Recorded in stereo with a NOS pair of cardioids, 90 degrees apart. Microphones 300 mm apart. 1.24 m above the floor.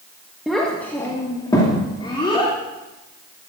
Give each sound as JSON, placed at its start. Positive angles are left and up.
{"t": 0.5, "sound": "a child speaking", "azimuth_deg": 0, "distance_m": 1.3}